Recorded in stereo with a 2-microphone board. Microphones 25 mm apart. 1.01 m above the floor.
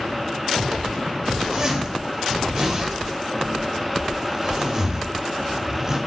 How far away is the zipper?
About 1.7 m.